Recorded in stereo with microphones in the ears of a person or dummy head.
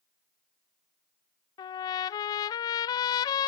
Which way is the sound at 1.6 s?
25° left (ahead or behind).